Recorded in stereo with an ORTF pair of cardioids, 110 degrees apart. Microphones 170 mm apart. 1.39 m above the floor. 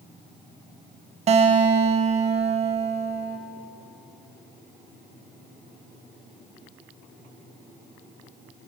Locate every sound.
1.3 s a guitar: 40° right, 0.9 m